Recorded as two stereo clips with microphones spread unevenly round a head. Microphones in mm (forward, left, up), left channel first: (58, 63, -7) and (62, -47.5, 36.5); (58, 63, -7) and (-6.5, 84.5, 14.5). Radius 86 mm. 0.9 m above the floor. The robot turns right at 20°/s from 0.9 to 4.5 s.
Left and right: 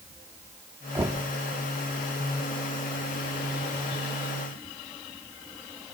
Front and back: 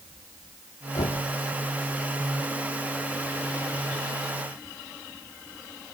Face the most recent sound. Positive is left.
turn(degrees=55)